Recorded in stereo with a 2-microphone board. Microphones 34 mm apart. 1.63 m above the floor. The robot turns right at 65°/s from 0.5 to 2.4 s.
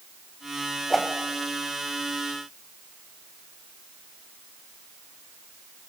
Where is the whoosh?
10° left (ahead or behind), 2.5 m; by 1.1 s centre (ahead or behind), 2.5 m.